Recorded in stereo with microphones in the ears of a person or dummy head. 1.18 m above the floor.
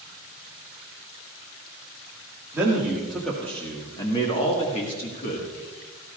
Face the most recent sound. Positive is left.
turn(degrees=50)  # may be behind; listen again after turning